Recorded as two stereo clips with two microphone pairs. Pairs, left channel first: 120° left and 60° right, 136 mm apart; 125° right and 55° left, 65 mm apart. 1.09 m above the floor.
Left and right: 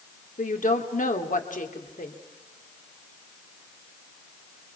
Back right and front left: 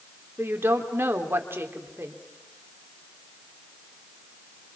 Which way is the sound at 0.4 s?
105° left.